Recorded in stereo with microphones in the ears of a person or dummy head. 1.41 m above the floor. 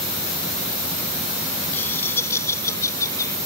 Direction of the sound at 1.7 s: 15° left (ahead or behind).